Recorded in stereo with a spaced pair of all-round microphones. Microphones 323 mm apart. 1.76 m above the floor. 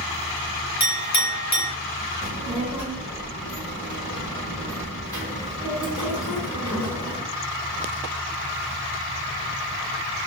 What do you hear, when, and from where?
0.8 s a clink: 55° left (ahead or behind), 1.3 m
2.2 s a child speaking: 30° left (ahead or behind), 1.4 m